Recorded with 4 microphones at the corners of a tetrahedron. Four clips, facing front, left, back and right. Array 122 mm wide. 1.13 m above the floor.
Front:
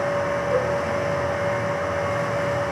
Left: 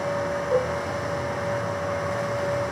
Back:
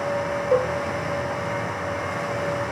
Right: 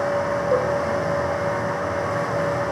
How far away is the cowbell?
About 3 m.